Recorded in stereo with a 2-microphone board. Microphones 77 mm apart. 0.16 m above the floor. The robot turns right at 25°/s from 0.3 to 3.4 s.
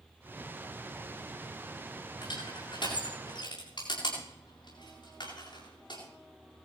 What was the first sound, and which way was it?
Crushing, 65° left (ahead or behind).